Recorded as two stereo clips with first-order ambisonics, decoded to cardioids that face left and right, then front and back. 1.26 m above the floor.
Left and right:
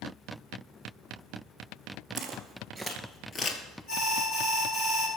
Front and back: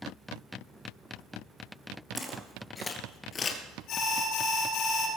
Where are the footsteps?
110° right, 1.4 m; by 3.6 s 50° left, 1.5 m.